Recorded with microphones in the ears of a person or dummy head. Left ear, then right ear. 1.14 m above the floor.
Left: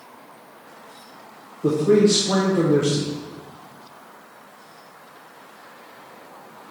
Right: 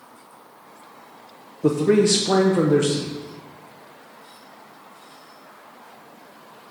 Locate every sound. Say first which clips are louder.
1.6 s a man speaking: left 1 dB; 60° right (ahead or behind), 0.9 m